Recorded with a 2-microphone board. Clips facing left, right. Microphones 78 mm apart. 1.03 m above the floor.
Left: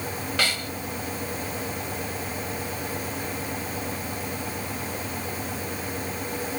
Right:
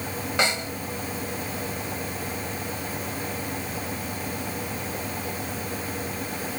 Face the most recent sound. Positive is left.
turn(degrees=-20)  # may be behind; listen again after turning